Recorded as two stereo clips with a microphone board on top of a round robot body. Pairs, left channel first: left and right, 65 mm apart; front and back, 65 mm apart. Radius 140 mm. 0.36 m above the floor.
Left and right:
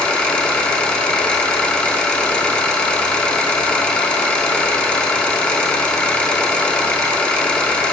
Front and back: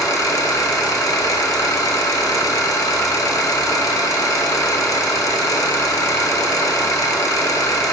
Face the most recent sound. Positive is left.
turn(degrees=15)